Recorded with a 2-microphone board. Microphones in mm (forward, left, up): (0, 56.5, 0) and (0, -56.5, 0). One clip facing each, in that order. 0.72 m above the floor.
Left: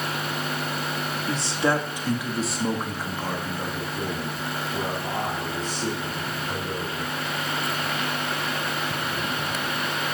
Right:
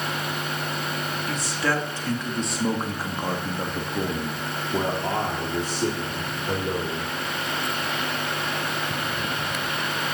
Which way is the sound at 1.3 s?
30° left (ahead or behind).